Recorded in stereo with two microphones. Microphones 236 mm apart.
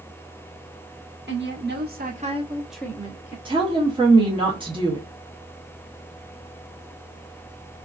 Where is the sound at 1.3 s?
55° right (ahead or behind), 1.2 m; by 3.4 s 35° left (ahead or behind), 0.7 m.